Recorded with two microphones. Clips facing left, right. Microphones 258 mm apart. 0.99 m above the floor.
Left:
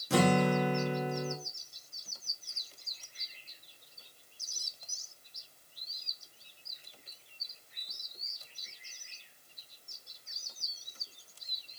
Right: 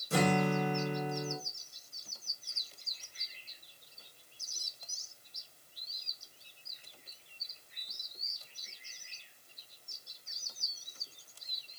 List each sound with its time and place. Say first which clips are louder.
0.1 s a guitar: left 3 dB; 75° left (ahead or behind), 1.1 m